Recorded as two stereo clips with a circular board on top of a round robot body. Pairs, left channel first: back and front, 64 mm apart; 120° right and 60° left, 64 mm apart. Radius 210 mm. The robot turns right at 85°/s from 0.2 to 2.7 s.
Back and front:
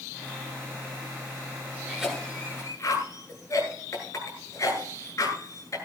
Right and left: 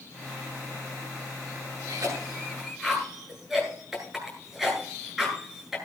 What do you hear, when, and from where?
1.9 s a cough: 75° left, 9 m; by 5.8 s 145° left, 9 m